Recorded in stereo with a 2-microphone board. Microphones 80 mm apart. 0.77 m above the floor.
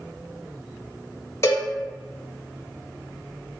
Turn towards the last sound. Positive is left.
turn(degrees=35)  # may be behind; listen again after turning